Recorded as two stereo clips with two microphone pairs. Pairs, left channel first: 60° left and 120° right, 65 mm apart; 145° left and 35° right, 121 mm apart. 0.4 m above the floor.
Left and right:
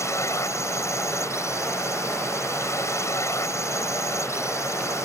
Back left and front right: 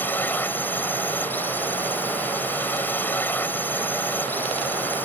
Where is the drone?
75° left.